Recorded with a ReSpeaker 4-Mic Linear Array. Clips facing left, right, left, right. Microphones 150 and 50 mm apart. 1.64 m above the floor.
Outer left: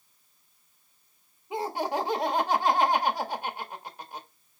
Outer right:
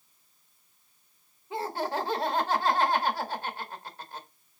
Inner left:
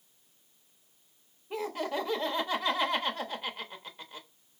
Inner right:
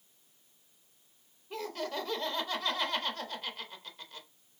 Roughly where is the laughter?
Centre.